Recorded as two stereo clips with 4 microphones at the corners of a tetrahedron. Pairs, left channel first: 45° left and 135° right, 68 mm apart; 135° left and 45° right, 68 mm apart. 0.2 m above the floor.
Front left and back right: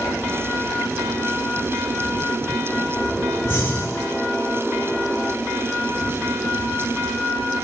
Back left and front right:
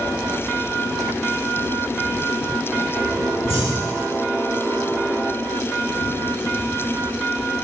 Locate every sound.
3.5 s breathing: 10° right, 1.8 m